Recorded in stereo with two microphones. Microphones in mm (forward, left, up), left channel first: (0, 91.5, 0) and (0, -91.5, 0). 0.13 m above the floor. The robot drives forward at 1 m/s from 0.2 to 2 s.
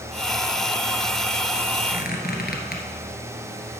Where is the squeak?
55° left (ahead or behind), 1.7 m.